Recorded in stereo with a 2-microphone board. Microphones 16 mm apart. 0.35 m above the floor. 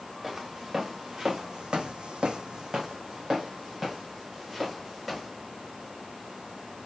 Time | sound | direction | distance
0.2 | footsteps | 20° right (ahead or behind) | 2.5 m